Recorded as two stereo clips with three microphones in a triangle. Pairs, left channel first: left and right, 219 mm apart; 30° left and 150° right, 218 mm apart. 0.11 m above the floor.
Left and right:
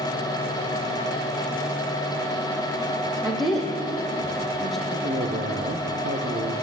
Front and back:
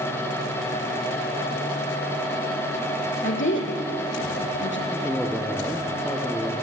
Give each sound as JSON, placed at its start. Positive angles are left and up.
{"t": 3.2, "sound": "a woman speaking", "azimuth_deg": 0, "distance_m": 4.5}
{"t": 4.9, "sound": "a man speaking", "azimuth_deg": -60, "distance_m": 2.5}